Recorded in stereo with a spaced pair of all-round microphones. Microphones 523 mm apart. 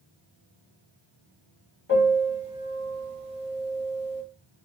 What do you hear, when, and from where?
1.9 s a piano: 20° left (ahead or behind), 2 m